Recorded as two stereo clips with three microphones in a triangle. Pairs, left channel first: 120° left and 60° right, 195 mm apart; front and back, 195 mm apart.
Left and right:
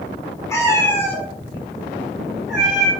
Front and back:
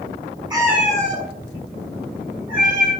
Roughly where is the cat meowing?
Behind.